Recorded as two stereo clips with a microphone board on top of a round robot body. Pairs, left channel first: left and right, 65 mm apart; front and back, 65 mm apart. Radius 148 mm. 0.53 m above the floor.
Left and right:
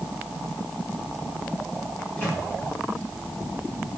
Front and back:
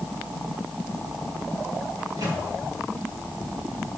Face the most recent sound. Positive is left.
turn(degrees=155)